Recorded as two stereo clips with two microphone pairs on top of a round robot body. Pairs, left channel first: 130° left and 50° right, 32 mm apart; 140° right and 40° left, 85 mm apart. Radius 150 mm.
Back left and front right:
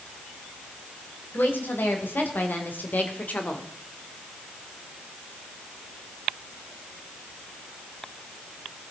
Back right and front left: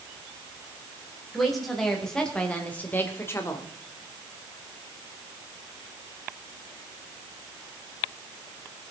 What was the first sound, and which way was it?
A woman speaking, 130° left.